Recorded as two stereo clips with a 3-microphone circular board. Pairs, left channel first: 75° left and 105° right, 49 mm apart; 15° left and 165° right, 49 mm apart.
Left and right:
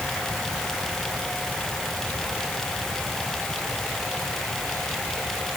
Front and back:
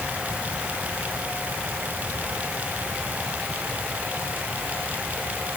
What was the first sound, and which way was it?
Only background noise.